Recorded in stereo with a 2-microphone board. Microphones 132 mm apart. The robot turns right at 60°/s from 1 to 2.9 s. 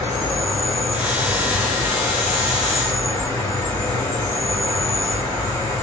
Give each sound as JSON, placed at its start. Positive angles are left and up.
{"t": 0.0, "sound": "an insect", "azimuth_deg": 40, "distance_m": 1.3}